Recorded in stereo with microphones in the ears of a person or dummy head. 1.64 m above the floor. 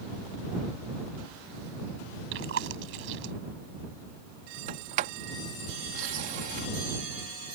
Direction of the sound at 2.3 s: 80° right.